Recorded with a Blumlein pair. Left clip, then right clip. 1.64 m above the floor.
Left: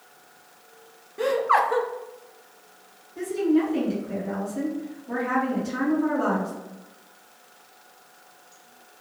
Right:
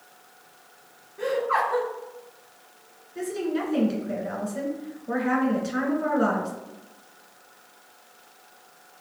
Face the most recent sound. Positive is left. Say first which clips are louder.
# left 5 dB
turn(degrees=-65)